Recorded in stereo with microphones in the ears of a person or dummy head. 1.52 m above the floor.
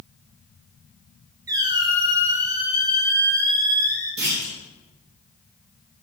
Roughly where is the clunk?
Right.